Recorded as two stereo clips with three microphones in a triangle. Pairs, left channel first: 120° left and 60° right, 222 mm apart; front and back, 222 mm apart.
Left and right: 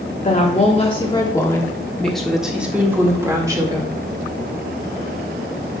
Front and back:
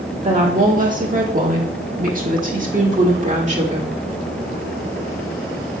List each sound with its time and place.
0.2 s a woman speaking: 145° left, 1.5 m; by 3.9 s 130° right, 2 m